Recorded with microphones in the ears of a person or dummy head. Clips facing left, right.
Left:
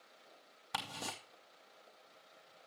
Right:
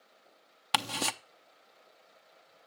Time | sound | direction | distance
0.7 | ticking | 85° right | 0.7 m